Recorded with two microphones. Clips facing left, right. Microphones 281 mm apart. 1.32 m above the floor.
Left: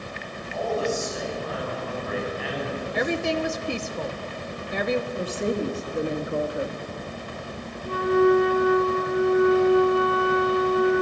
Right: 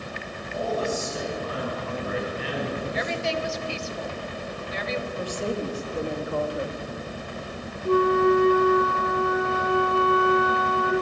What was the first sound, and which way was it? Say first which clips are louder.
A man speaking: left 1 dB; 45° right (ahead or behind).